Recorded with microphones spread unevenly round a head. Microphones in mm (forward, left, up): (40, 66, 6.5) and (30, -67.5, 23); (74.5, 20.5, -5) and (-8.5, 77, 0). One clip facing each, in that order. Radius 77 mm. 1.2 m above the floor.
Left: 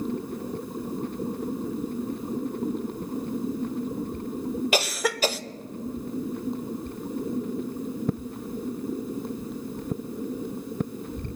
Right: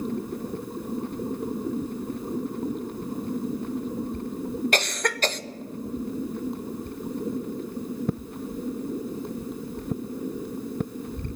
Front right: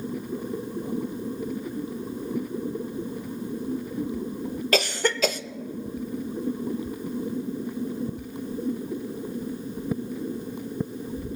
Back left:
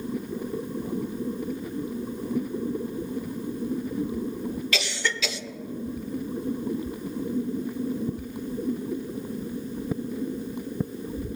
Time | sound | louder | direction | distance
4.7 | a cough | left 1 dB, front right 6 dB | 5° left | 0.6 m